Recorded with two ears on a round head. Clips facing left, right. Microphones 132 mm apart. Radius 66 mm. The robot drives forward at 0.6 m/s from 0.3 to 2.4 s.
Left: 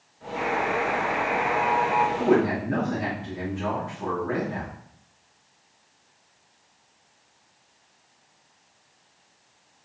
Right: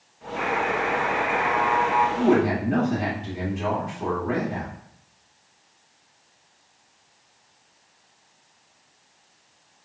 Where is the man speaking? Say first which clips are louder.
Right 1 dB; 20° right (ahead or behind), 1.9 m.